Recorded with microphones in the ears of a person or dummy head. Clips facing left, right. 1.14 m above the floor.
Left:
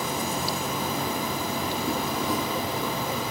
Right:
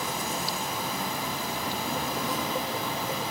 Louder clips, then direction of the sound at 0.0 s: Left 4 dB; 75° left (ahead or behind).